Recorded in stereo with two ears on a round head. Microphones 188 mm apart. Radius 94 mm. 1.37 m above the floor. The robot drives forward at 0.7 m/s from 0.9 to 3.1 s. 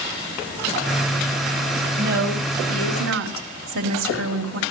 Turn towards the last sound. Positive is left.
turn(degrees=-70)  # may be behind; listen again after turning